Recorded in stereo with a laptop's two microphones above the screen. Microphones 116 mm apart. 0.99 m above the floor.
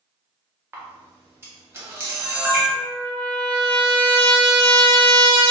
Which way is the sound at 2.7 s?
50° right (ahead or behind).